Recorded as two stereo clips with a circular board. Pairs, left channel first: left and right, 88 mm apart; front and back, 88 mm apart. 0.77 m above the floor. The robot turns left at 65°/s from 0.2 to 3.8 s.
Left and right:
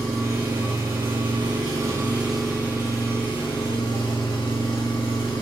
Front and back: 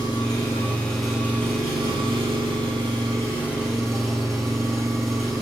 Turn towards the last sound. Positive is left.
turn(degrees=90)